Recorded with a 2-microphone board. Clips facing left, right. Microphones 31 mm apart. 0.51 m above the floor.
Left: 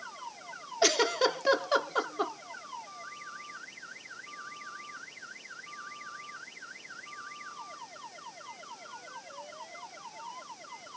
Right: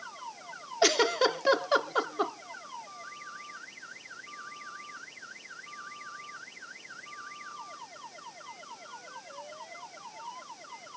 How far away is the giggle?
About 1.1 m.